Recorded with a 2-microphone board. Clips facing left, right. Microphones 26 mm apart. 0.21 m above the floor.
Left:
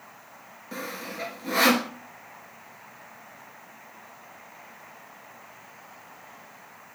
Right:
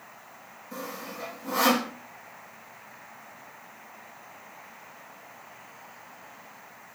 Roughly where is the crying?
I don't hear crying.